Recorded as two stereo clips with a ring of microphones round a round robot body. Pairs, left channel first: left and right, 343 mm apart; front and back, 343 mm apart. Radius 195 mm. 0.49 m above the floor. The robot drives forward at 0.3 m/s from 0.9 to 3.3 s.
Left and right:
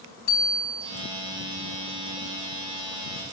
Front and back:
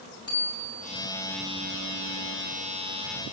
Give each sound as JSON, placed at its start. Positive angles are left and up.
{"t": 0.3, "sound": "a bicycle bell", "azimuth_deg": 80, "distance_m": 3.5}